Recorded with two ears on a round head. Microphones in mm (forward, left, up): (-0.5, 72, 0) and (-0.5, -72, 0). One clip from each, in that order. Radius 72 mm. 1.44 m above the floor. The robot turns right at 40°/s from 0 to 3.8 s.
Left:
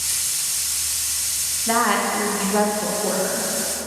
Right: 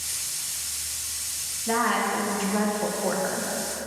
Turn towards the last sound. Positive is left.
turn(degrees=-115)